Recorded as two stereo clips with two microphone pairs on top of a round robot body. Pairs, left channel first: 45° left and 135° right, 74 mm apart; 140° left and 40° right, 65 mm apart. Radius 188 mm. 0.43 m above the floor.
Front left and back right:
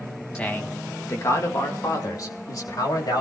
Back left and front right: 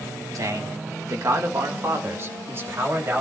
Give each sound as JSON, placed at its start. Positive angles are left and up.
{"t": 0.3, "sound": "a man speaking", "azimuth_deg": -30, "distance_m": 1.4}